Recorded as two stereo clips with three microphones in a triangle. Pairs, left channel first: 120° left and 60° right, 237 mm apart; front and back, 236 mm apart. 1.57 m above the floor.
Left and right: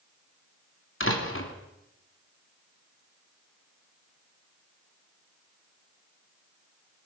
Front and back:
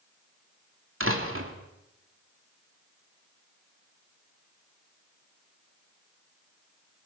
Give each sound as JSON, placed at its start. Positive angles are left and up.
{"t": 1.0, "sound": "a door slam", "azimuth_deg": 150, "distance_m": 3.0}